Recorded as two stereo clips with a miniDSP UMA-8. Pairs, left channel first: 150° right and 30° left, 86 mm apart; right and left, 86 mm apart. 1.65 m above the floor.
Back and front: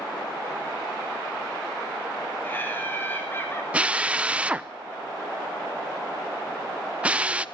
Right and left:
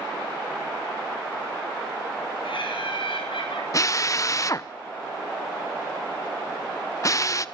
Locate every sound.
2.4 s laughter: 85° right, 8.5 m
3.7 s a drill: 45° right, 0.8 m